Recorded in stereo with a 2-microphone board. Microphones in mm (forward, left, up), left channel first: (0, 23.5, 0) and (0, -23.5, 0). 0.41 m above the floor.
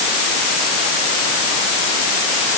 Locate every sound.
Only background noise.